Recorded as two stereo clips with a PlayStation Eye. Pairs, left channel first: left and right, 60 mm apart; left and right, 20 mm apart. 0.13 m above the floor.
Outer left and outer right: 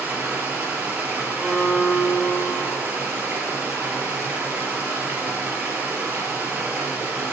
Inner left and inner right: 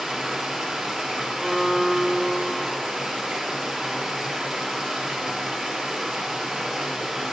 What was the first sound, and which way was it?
Running water, 25° right (ahead or behind).